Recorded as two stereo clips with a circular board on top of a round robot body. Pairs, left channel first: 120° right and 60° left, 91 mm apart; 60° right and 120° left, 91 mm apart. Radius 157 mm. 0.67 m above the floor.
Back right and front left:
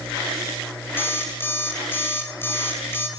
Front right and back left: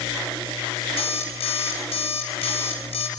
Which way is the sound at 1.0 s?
55° right.